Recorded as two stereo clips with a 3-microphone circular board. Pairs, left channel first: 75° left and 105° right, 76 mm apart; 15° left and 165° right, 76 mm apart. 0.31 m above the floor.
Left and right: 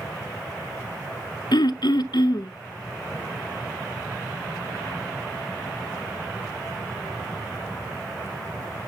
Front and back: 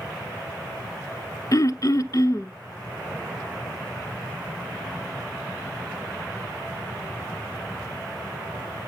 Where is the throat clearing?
55° left, 0.5 m.